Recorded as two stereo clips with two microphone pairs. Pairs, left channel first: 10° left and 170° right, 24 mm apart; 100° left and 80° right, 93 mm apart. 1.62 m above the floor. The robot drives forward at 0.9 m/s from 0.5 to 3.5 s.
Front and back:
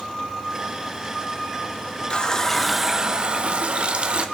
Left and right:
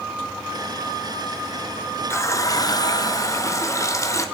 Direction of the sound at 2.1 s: 45° left.